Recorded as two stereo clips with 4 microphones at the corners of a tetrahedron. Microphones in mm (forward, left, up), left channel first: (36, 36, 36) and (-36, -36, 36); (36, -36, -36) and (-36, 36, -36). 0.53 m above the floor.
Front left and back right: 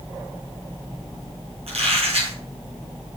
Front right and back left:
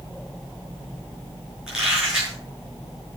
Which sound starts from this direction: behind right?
A squeak, at 1.7 s.